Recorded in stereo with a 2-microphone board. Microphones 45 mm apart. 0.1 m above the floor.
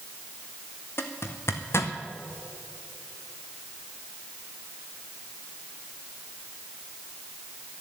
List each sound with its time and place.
1.0 s a zipper: 75° left (ahead or behind), 1.2 m